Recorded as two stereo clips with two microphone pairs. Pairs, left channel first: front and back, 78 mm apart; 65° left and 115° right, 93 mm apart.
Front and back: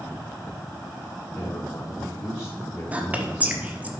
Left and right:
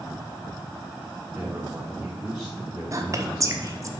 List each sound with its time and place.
1.3 s a man speaking: 40° right, 3 m
2.9 s whispering: 120° right, 1.1 m